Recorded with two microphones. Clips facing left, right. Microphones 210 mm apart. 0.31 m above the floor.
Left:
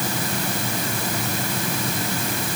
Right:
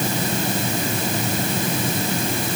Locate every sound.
Only background noise.